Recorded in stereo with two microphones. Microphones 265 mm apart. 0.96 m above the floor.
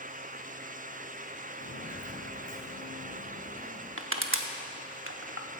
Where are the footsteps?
50° left (ahead or behind), 1.5 m; by 3.9 s 65° left (ahead or behind), 4 m.